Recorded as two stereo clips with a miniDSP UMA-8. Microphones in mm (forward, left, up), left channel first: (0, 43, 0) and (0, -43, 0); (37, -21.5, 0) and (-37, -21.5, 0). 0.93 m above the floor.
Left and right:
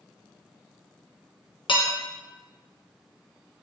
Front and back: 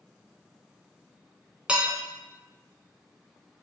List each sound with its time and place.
1.7 s dishes clattering: 105° left, 0.6 m